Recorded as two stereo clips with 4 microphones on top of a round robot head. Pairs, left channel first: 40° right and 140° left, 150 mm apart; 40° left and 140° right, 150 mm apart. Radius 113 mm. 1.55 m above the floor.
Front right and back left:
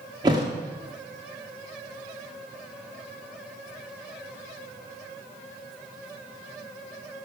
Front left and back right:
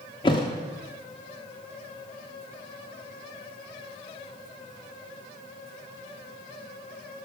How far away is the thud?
About 1.2 m.